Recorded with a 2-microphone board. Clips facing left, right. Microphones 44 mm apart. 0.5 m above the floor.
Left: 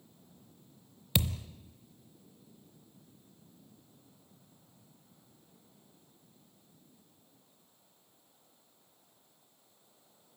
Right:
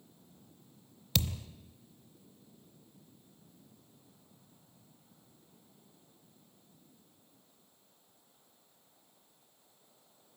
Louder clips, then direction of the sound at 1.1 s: Left 2 dB; 20° left (ahead or behind).